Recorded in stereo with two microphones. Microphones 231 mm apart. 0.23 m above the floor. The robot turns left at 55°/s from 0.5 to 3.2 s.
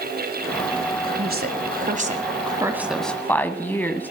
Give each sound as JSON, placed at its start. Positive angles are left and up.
{"t": 1.0, "sound": "a woman speaking", "side_deg": -40, "distance_m": 1.5}